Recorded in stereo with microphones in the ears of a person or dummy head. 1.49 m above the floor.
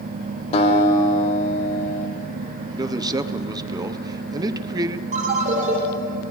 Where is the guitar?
35° left (ahead or behind), 1.6 m.